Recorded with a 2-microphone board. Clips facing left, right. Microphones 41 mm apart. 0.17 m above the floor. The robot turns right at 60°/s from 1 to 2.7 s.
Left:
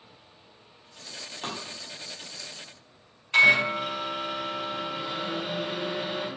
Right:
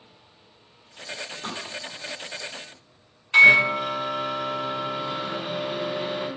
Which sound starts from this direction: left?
Tapping, at 1.4 s.